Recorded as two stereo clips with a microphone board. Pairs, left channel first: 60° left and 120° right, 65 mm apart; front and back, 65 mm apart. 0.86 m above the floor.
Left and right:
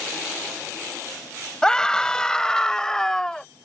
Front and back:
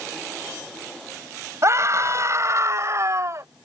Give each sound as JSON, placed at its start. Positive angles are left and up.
{"t": 1.6, "sound": "a scream", "azimuth_deg": 140}